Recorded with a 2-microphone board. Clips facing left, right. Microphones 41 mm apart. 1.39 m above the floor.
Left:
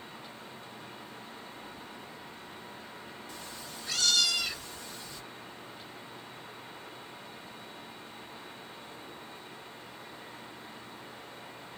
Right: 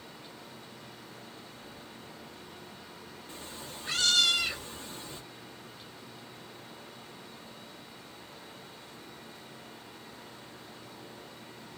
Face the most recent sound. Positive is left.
turn(degrees=-30)  # may be behind; listen again after turning